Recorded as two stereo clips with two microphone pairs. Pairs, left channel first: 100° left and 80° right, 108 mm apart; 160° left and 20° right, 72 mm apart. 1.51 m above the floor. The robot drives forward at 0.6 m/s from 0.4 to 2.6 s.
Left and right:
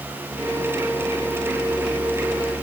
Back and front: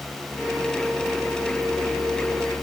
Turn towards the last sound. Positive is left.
No sound to turn to.